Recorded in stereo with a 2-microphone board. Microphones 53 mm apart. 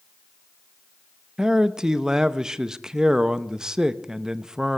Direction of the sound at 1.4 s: 15° right (ahead or behind).